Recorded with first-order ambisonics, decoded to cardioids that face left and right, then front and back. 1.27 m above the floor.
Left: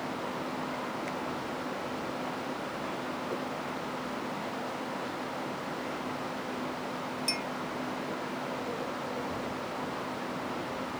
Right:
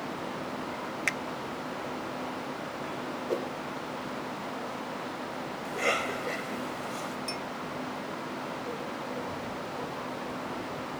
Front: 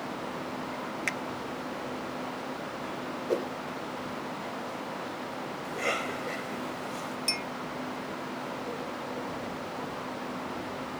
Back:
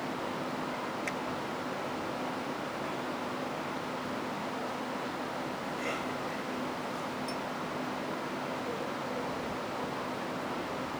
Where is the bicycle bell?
No bicycle bell in this recording.